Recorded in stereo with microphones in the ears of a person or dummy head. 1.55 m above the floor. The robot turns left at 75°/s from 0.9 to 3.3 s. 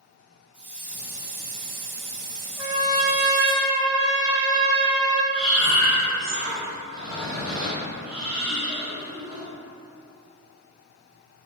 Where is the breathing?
5° right (ahead or behind), 1.0 m.